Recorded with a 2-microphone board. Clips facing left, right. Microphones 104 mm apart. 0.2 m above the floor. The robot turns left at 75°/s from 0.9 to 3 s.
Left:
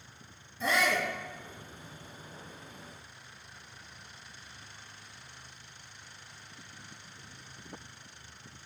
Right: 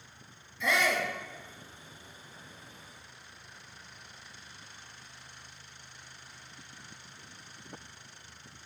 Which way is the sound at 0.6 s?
40° left (ahead or behind).